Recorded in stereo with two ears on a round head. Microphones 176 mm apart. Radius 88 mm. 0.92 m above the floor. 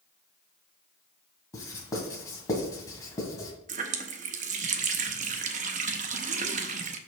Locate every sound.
1.5 s writing: 20° left (ahead or behind), 1.7 m
3.7 s a running tap: 40° right (ahead or behind), 0.7 m